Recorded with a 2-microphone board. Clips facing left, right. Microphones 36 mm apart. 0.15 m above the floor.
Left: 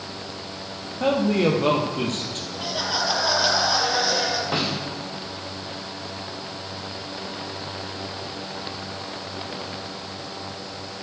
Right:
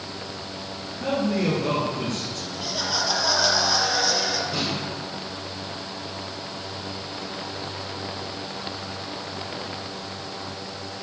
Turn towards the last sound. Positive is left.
turn(degrees=75)  # may be behind; listen again after turning